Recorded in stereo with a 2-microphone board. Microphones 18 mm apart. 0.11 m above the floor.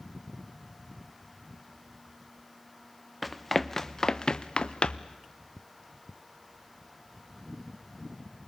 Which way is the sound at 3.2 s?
5° left (ahead or behind).